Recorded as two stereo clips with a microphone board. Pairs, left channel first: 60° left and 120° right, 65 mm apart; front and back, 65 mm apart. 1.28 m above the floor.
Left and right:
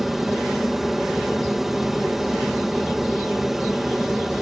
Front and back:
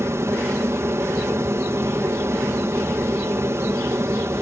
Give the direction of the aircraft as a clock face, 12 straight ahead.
7 o'clock.